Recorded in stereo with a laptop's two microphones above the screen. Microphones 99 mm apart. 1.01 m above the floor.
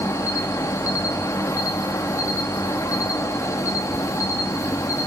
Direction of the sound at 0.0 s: 30° left (ahead or behind).